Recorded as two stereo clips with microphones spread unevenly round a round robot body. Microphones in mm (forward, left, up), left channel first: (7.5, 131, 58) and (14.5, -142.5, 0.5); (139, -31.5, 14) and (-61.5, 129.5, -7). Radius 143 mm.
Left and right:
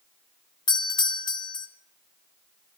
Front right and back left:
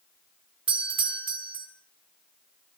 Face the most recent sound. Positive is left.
turn(degrees=175)